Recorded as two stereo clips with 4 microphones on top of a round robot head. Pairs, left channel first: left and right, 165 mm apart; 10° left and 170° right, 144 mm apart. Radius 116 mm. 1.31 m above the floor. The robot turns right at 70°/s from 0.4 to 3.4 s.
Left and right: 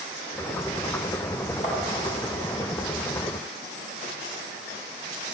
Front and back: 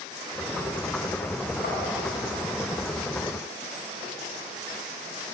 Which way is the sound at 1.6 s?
35° left.